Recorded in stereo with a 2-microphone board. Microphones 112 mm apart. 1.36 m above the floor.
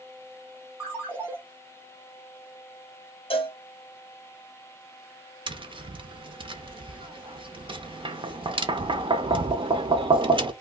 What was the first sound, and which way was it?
A ringtone, 15° right (ahead or behind).